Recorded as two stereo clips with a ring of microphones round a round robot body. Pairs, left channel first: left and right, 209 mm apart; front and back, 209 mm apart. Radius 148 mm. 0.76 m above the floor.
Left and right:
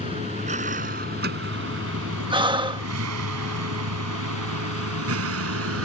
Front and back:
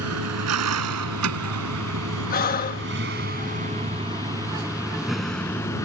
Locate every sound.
0.0 s a vehicle: 165° right; by 5.8 s 80° right
2.3 s breathing: 30° right